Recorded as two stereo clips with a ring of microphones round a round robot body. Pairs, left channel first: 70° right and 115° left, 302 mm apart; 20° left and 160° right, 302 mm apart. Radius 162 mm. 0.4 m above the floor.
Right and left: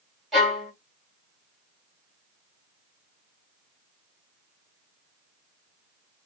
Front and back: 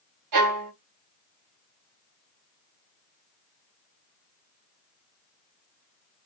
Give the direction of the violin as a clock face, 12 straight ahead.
5 o'clock.